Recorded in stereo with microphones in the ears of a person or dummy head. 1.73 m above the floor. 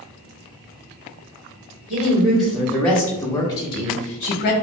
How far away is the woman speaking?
About 1.7 m.